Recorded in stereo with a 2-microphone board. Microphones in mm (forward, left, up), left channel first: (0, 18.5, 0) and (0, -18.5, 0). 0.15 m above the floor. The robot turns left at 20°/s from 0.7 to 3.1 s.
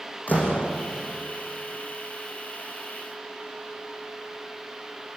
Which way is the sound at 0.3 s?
45° left (ahead or behind).